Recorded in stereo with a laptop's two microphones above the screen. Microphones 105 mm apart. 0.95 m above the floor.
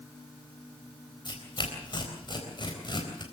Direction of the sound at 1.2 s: 45° left (ahead or behind).